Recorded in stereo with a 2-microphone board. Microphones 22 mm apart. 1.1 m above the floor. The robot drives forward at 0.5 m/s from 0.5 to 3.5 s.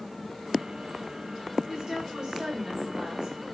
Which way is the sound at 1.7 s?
35° right (ahead or behind).